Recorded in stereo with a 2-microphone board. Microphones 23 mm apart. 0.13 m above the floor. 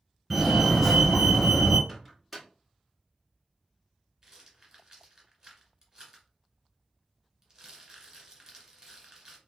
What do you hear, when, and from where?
0.3 s a fire alarm: centre (ahead or behind), 2 m
1.9 s a microwave: 5° left (ahead or behind), 1.1 m
4.2 s a rattle: 25° right (ahead or behind), 1.6 m